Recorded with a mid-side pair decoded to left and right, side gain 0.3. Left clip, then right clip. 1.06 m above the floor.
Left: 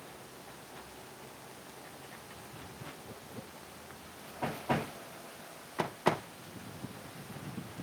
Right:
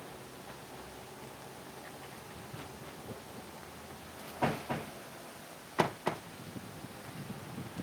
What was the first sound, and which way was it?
A vehicle, 40° right.